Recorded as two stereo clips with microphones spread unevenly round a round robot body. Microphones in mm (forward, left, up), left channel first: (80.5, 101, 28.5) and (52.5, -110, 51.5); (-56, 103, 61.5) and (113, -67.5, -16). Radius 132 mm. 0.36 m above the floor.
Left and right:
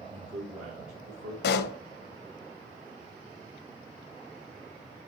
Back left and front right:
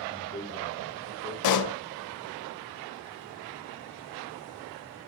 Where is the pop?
125° left, 0.7 m.